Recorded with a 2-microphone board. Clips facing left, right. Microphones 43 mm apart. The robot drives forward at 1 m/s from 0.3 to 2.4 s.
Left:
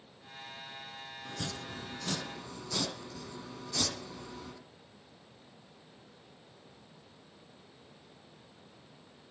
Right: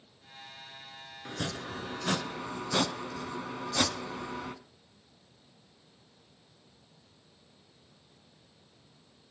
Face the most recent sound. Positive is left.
turn(degrees=-50)  # may be behind; listen again after turning